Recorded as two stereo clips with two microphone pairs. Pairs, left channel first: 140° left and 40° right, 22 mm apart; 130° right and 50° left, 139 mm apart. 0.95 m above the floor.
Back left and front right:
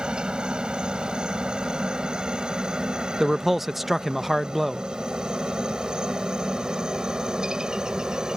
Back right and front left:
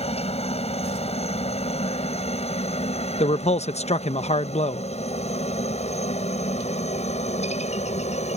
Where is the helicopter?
85° right; by 8.4 s 95° right.